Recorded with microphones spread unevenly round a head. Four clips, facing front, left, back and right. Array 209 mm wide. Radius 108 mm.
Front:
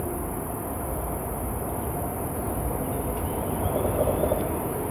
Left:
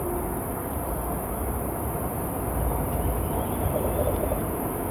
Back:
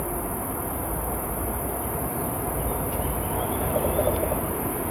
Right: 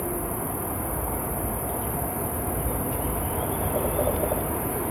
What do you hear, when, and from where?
0.0 s an insect: 125° right, 1.0 m